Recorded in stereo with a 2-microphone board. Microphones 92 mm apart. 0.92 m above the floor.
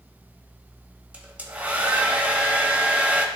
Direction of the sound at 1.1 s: 15° right (ahead or behind).